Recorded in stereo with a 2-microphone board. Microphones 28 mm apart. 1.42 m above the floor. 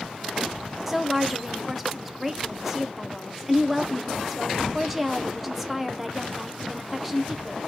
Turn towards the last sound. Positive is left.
turn(degrees=-5)  # may be behind; listen again after turning